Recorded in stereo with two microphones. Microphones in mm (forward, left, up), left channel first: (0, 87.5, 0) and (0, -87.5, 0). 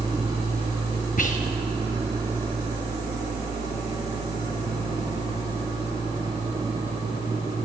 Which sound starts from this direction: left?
Whispering, at 1.2 s.